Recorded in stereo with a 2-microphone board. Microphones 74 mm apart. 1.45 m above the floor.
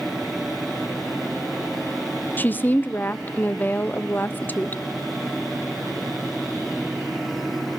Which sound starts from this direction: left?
A woman speaking, at 2.4 s.